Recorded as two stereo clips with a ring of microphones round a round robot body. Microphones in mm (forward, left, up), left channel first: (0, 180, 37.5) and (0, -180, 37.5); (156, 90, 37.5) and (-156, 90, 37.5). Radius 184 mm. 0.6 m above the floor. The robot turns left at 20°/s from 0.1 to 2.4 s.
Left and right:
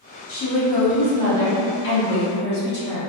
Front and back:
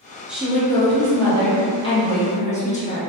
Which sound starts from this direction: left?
A woman speaking, at 0.3 s.